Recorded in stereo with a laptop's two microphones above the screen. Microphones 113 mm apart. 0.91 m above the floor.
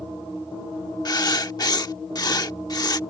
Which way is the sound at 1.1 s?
35° left (ahead or behind).